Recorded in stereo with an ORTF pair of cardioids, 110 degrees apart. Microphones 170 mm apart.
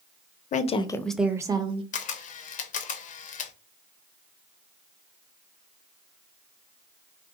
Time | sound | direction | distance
0.5 | a woman speaking | 50° left | 0.5 m
1.9 | a camera shutter | 50° left | 0.5 m